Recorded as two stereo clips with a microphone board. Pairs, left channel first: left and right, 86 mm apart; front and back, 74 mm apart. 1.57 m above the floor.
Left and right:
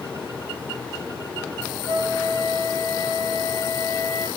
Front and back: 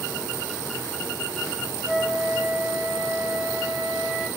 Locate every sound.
1.9 s a flute: 100° right, 5 m